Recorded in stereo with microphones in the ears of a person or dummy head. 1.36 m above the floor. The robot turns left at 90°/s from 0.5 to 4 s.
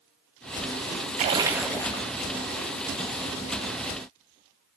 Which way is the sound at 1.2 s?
135° right.